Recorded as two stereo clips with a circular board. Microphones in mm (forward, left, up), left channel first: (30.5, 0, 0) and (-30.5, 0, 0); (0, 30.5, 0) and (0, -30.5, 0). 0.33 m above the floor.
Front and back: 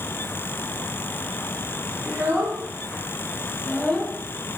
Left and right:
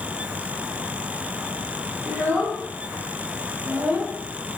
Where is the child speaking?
135° right, 2 m; by 4.2 s 25° right, 0.8 m.